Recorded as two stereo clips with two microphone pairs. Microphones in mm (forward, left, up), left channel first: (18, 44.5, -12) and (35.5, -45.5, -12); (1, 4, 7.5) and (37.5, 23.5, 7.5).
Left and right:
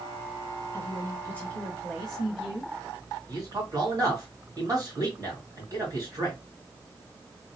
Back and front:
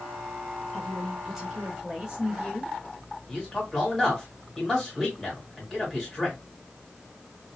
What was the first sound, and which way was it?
A woman speaking, 125° left.